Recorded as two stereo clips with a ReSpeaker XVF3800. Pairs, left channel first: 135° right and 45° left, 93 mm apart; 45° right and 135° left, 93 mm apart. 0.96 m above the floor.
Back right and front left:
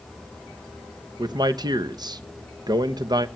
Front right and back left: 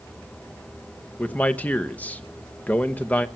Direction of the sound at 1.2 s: 25° left.